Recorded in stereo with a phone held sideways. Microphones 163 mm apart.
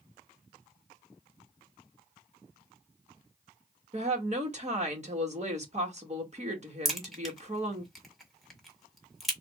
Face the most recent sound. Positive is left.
turn(degrees=0)  # may be behind; listen again after turning